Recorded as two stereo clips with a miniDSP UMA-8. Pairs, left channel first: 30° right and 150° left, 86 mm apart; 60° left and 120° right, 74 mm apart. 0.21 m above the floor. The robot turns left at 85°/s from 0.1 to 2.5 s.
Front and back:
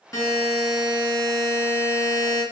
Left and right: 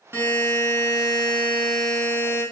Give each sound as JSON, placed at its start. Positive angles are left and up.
{"t": 0.1, "sound": "a buzzer", "azimuth_deg": -70, "distance_m": 1.2}